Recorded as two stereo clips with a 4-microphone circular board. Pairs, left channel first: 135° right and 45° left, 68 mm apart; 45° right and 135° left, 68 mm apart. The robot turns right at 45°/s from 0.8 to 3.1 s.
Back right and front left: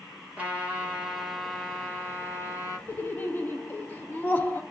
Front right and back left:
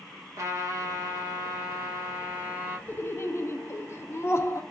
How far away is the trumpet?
About 1.4 m.